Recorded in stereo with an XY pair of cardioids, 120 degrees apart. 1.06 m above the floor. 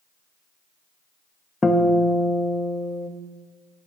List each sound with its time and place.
1.6 s a guitar: 15° left, 0.9 m